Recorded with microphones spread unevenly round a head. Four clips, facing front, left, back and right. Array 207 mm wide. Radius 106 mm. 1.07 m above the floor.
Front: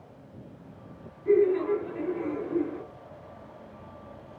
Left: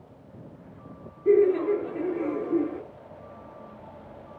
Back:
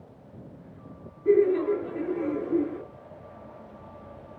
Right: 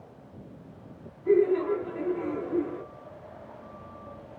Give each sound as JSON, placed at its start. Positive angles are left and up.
{"t": 1.2, "sound": "laughter", "azimuth_deg": 130, "distance_m": 1.5}